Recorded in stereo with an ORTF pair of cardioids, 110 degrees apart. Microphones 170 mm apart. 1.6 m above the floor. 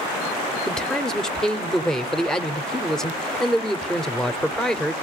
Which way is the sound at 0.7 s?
5° left.